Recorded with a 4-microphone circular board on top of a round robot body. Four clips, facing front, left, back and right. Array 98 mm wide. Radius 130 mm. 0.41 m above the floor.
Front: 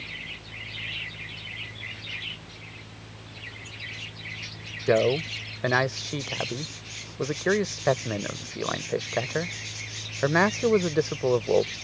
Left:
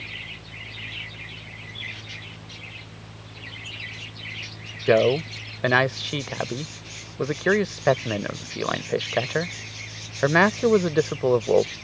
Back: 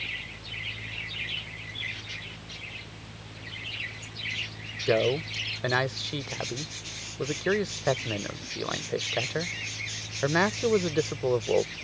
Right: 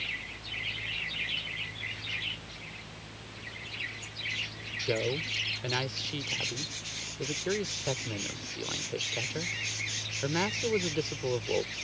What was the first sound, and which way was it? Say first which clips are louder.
A man speaking: left 13 dB, front 3 dB; 75° left.